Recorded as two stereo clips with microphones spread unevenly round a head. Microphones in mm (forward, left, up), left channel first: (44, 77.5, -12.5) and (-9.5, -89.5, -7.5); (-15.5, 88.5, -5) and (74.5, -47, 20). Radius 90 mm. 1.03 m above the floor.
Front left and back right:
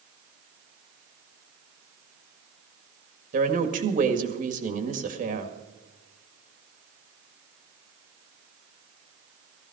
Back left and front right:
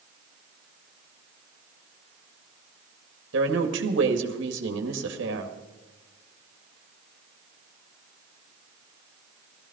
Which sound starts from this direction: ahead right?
A woman speaking, at 3.3 s.